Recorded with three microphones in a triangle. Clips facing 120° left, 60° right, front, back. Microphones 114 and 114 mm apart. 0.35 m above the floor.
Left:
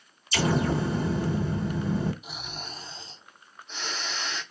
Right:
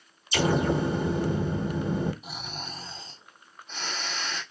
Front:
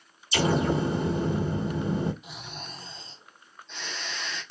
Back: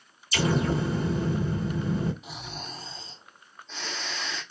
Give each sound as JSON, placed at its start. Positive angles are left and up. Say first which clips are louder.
{"t": 0.3, "sound": "an explosion", "louder": "right 1 dB, front 1 dB", "azimuth_deg": -20, "distance_m": 1.2}
{"t": 2.2, "sound": "snoring", "louder": "right 1 dB, back 2 dB", "azimuth_deg": -115, "distance_m": 2.5}